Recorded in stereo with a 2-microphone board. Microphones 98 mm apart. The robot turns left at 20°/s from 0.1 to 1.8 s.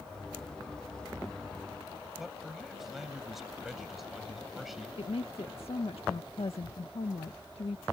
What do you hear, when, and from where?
2.2 s a man speaking: centre (ahead or behind)
5.0 s a woman speaking: 75° left (ahead or behind)